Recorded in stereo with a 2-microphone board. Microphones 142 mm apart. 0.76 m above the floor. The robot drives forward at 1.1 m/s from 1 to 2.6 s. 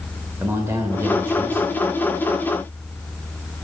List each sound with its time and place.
0.4 s a man speaking: 20° right (ahead or behind), 1.0 m; by 1.8 s 15° right (ahead or behind), 1.4 m